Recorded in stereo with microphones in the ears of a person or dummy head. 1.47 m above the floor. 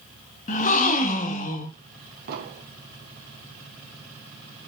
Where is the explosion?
55° right (ahead or behind), 1.7 m.